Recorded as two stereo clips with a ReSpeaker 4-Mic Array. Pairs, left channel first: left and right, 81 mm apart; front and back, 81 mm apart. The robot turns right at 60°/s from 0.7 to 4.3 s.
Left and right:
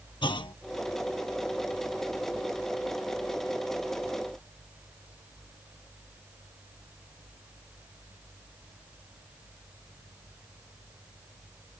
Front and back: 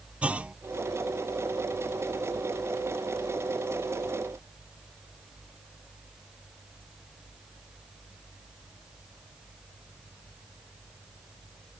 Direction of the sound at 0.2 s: 110° left.